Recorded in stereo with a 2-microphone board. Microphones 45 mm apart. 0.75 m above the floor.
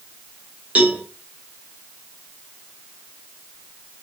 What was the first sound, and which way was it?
A cowbell, 30° right (ahead or behind).